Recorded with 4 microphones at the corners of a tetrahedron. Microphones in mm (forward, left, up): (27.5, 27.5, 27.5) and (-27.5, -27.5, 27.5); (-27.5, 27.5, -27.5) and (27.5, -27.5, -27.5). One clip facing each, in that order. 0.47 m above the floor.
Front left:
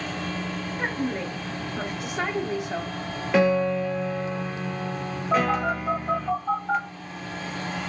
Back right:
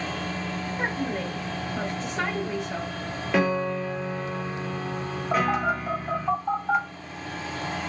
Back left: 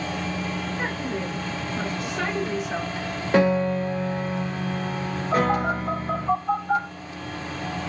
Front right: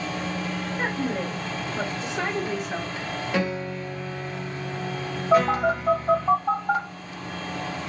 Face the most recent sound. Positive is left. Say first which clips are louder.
# front left 1 dB, front right 3 dB
turn(degrees=-50)